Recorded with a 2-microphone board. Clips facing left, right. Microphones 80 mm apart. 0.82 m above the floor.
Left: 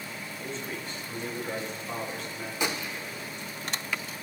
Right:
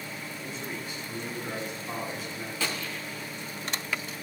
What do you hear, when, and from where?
0.4 s a man speaking: 10° right (ahead or behind), 8 m
2.6 s a gunshot: 20° left (ahead or behind), 1.2 m